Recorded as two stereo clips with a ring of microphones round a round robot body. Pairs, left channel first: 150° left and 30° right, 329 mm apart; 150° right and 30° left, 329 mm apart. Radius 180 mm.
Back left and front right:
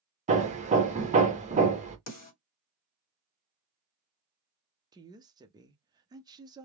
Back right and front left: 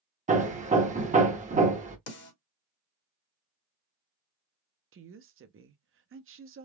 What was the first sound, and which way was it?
Hammering, straight ahead.